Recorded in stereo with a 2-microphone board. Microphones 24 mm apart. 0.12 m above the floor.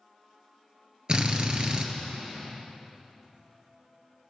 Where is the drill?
35° right (ahead or behind), 1.1 m.